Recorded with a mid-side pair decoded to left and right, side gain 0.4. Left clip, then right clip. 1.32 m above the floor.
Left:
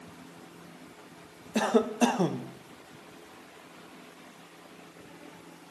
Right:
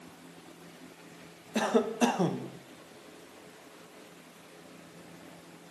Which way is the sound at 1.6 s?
20° left.